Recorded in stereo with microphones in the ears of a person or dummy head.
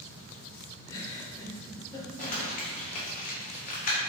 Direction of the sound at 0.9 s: 20° left (ahead or behind).